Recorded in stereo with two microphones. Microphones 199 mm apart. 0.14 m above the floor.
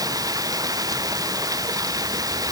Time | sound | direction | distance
0.0 | running water | 20° right (ahead or behind) | ?